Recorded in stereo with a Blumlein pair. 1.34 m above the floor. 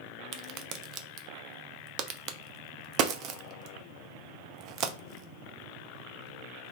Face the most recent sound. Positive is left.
turn(degrees=-35)